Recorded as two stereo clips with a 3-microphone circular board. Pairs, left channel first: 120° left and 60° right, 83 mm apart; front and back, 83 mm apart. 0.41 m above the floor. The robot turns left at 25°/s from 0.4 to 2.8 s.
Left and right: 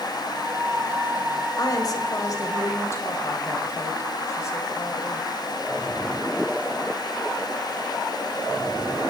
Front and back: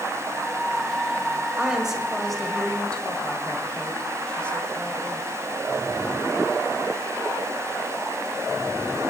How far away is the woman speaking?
About 2.5 m.